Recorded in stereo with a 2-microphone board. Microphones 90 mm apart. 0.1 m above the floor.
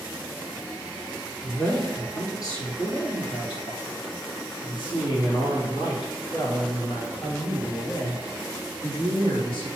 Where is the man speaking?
30° left (ahead or behind), 1.6 m; by 9.7 s 65° left (ahead or behind), 5 m.